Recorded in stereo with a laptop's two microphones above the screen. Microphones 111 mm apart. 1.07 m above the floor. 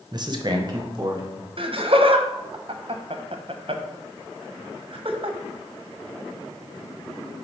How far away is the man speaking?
About 0.8 m.